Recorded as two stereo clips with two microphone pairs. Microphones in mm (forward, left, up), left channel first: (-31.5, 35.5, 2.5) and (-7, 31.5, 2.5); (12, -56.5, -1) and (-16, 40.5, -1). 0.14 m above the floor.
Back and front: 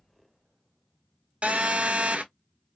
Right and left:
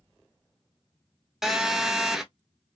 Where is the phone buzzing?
20° left, 0.6 m.